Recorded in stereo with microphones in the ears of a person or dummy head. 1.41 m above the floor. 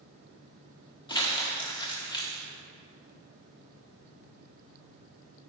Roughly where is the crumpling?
Centre.